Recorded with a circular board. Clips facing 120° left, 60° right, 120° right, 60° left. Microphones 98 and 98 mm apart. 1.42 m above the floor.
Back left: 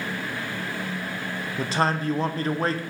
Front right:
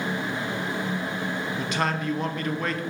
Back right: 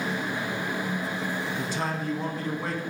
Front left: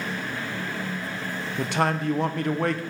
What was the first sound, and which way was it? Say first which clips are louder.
A man speaking: back left 5 dB, front left 5 dB; 65° left.